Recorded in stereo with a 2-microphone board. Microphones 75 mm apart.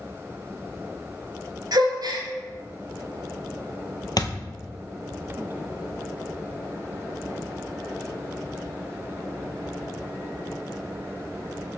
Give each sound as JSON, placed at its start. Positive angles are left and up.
{"t": 1.7, "sound": "a gasp", "side_deg": -65, "distance_m": 1.0}
{"t": 4.2, "sound": "a thud", "side_deg": 65, "distance_m": 0.7}